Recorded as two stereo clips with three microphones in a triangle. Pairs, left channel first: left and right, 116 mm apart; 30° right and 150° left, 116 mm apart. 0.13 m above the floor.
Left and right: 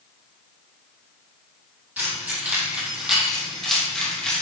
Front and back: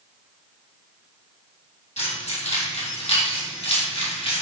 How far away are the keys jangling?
About 3.5 m.